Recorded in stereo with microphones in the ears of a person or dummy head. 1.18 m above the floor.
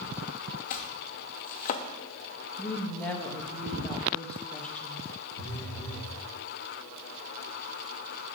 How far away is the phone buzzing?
About 2 m.